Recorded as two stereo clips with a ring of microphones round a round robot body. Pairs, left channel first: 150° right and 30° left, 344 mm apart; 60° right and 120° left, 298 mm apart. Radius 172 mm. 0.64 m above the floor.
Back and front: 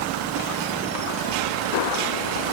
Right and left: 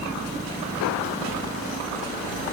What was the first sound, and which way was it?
Only background noise.